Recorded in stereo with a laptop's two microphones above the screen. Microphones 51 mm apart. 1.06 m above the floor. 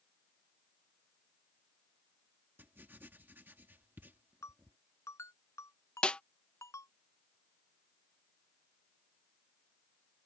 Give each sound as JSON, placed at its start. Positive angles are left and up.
{"t": 2.6, "sound": "writing", "side_deg": -45}
{"t": 4.4, "sound": "a ringtone", "side_deg": 80}
{"t": 6.0, "sound": "a snare drum", "side_deg": 20}